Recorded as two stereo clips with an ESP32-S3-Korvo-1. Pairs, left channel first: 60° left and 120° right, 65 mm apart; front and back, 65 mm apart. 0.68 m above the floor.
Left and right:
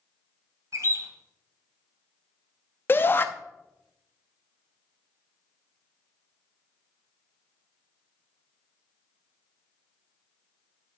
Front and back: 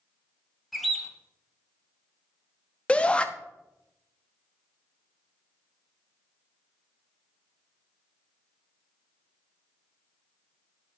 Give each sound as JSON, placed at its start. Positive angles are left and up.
{"t": 0.7, "sound": "a bird", "azimuth_deg": -90, "distance_m": 0.9}
{"t": 2.9, "sound": "a shout", "azimuth_deg": 55, "distance_m": 0.6}